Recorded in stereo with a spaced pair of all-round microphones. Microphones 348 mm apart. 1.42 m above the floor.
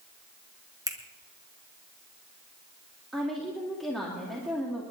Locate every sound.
0.9 s a finger snap: 10° right (ahead or behind), 1.4 m
3.1 s a woman speaking: centre (ahead or behind), 2.5 m